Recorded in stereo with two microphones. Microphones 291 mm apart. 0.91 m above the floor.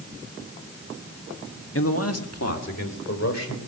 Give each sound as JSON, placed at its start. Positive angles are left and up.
{"t": 1.8, "sound": "a man speaking", "side_deg": 50, "distance_m": 1.1}